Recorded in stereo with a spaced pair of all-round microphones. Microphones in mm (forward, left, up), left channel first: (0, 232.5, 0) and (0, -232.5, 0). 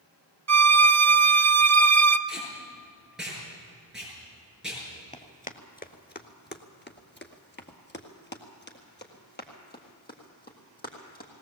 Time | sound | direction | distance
0.5 | a violin | 35° right (ahead or behind) | 0.6 m
2.3 | tape being pulled | centre (ahead or behind) | 7.5 m
5.1 | running footsteps | 15° left (ahead or behind) | 1.2 m